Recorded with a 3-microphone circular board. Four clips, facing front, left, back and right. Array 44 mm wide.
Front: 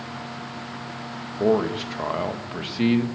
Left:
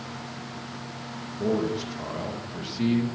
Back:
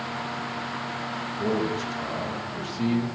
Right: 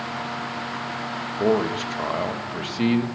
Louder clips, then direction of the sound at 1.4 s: Right 5 dB, front 6 dB; 45° right.